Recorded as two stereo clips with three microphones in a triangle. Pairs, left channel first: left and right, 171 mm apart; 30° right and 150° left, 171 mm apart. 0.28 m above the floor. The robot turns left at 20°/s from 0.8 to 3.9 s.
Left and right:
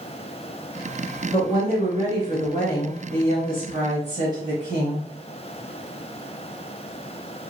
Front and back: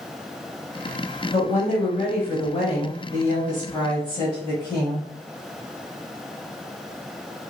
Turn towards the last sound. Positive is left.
turn(degrees=-80)